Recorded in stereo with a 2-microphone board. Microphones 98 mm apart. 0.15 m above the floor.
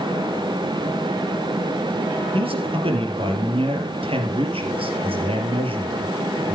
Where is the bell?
I don't hear a bell.